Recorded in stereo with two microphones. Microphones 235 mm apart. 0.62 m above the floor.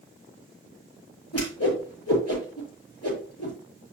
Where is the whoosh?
85° left, 5.5 m.